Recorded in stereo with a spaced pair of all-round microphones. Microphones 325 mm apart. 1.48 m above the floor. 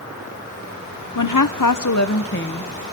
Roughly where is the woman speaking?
Left.